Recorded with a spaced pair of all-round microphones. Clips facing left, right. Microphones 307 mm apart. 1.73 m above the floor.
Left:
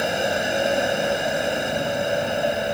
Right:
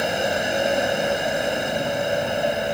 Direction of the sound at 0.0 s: Centre (ahead or behind).